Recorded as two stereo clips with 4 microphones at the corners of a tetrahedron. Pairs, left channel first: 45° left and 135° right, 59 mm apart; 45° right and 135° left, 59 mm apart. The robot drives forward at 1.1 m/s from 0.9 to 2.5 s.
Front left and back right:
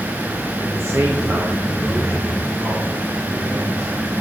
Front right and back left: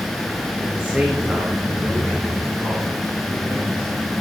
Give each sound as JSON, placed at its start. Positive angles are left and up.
{"t": 0.6, "sound": "a man speaking", "azimuth_deg": -155, "distance_m": 1.1}